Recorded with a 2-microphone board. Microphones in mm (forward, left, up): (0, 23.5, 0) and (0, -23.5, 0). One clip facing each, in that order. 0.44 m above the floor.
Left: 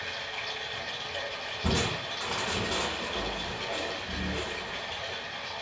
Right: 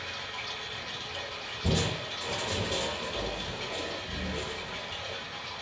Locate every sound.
0.0 s running water: 70° left (ahead or behind), 1.1 m
1.6 s crushing: 80° left, 0.9 m